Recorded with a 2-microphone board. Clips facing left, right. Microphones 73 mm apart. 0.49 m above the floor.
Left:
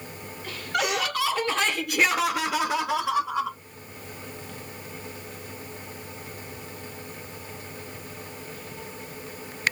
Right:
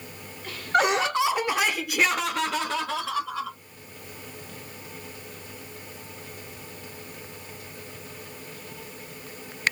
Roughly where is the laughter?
Right.